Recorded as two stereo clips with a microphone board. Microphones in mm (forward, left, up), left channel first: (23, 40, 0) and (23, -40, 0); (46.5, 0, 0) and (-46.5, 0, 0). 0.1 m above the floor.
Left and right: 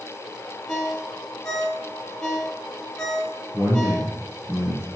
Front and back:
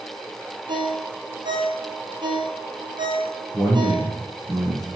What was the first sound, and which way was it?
A ringtone, 175° left.